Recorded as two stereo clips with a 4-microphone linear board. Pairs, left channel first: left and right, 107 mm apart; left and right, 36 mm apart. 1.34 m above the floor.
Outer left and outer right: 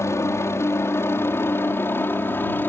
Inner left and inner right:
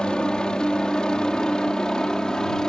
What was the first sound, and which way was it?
A helicopter, 25° left (ahead or behind).